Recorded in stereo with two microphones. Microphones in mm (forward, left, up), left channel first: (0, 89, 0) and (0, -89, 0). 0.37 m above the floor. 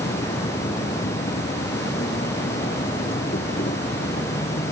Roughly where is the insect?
Left.